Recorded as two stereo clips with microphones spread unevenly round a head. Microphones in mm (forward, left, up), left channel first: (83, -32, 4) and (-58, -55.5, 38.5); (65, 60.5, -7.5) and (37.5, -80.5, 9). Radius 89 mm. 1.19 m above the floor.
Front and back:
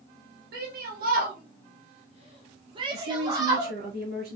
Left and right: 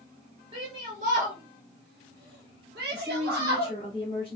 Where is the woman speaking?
165° right, 3 m.